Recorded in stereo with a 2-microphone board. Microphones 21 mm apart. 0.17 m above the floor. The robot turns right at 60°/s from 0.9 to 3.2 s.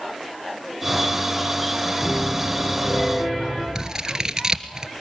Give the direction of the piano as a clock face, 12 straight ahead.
12 o'clock.